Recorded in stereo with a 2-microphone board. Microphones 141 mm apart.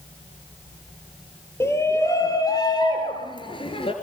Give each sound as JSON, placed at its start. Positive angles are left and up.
{"t": 1.6, "sound": "a shout", "side_deg": 20, "distance_m": 2.5}